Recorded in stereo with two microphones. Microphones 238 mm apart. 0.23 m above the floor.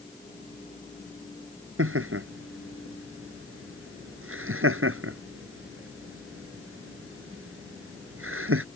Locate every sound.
1.8 s laughter: 65° right (ahead or behind)